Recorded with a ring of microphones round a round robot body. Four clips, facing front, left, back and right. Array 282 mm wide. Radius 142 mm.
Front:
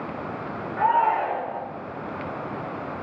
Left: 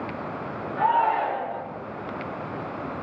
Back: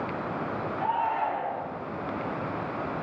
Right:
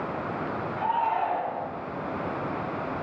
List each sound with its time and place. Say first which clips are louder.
0.8 s a shout: left 5 dB, front 8 dB; 30° left, 3.5 m